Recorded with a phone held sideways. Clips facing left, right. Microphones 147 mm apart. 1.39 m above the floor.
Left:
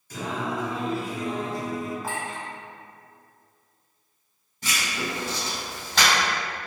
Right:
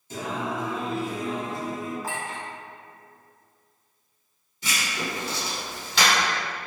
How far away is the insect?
No insect in this recording.